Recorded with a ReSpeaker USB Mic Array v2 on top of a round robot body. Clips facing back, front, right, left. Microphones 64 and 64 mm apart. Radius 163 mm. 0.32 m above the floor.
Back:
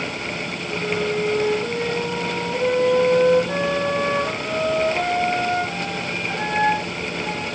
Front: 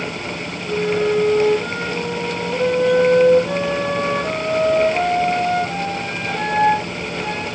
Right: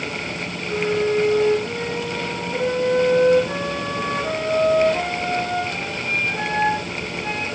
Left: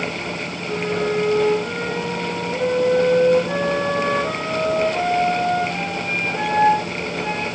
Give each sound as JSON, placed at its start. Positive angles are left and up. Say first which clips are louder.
{"t": 0.7, "sound": "a flute", "louder": "front 6 dB, right 2 dB", "azimuth_deg": 15, "distance_m": 5.0}